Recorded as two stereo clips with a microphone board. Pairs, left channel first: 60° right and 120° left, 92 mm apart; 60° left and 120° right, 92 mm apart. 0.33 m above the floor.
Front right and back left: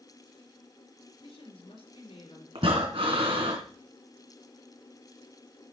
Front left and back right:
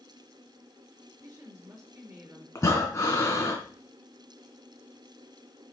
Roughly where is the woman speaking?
Ahead right.